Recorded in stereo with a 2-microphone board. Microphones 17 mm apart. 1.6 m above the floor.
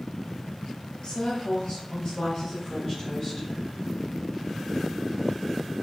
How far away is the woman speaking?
About 0.8 m.